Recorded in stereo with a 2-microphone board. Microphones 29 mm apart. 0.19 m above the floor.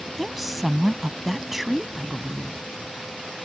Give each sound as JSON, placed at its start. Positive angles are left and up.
{"t": 0.2, "sound": "a woman speaking", "side_deg": -5}